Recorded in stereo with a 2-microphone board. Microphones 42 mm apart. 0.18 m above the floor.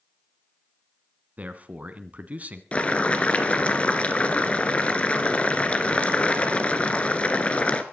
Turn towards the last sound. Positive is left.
turn(degrees=30)  # may be behind; listen again after turning